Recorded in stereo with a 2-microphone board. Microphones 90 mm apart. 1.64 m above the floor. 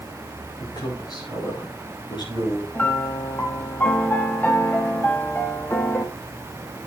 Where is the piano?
20° left (ahead or behind), 1.1 m.